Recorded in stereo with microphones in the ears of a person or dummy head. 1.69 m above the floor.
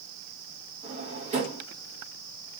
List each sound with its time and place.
0.8 s a drawer: 35° right (ahead or behind), 1.5 m